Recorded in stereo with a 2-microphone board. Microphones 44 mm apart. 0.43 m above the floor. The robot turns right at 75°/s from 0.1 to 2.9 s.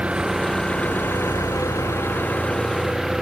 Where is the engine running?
20° right; by 3.2 s 170° right.